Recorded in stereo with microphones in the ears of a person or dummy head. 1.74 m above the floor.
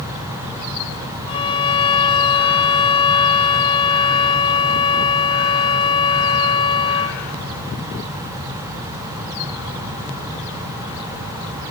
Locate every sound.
1.3 s a violin: 30° left (ahead or behind), 1.1 m